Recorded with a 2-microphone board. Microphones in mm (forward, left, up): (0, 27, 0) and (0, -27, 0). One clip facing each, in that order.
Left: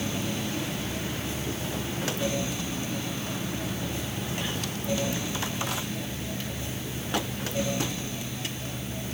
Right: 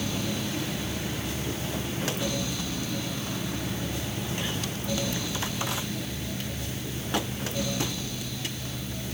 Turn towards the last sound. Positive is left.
No sound to turn to.